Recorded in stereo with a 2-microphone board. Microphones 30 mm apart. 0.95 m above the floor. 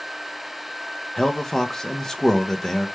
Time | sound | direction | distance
1.2 | a man speaking | 10° left (ahead or behind) | 0.5 m